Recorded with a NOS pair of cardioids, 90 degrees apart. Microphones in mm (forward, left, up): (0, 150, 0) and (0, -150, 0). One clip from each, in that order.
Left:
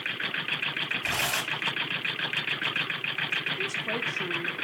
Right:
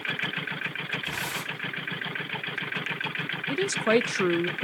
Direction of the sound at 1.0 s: 70° left.